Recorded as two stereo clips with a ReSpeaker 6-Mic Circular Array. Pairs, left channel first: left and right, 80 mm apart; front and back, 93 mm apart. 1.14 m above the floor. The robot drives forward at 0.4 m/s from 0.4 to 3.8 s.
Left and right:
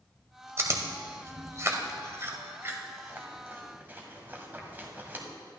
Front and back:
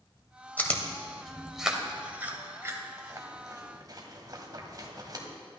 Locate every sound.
0.6 s chewing: 60° right, 1.1 m; by 5.2 s 150° right, 1.4 m